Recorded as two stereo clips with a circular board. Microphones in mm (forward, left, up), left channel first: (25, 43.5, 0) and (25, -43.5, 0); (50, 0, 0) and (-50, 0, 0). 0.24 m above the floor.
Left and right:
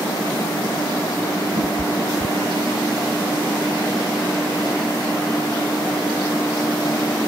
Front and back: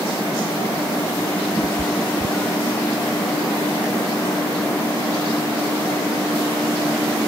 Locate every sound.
1.6 s a cat meowing: 65° right; by 2.9 s 85° right